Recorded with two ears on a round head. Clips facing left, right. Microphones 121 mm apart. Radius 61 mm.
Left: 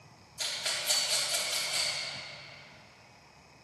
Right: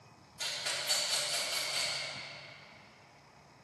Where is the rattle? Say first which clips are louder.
Left 1 dB; 50° left (ahead or behind), 3.5 m.